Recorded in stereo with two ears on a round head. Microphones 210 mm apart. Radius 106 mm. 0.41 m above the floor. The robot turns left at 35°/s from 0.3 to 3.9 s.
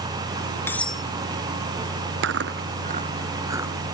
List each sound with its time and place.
0.7 s cutlery clinking: 10° left (ahead or behind); by 1.0 s 5° right (ahead or behind)
2.2 s chewing: 60° right (ahead or behind); by 3.9 s centre (ahead or behind)